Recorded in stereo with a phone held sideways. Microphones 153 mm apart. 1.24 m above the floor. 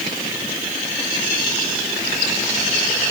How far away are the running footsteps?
No running footsteps in this recording.